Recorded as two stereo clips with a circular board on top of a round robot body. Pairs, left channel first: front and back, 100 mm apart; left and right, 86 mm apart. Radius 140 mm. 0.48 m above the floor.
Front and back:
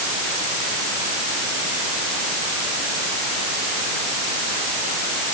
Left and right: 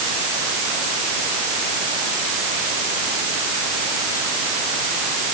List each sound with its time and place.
Only background noise.